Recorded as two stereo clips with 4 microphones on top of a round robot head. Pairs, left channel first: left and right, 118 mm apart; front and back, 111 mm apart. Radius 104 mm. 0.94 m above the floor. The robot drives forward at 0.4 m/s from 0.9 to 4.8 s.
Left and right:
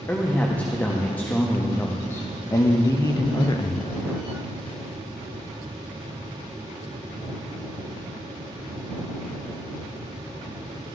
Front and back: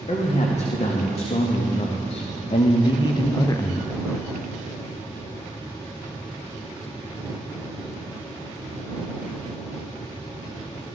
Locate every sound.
0.1 s a man speaking: 15° left, 1.4 m; by 3.9 s 65° left, 0.6 m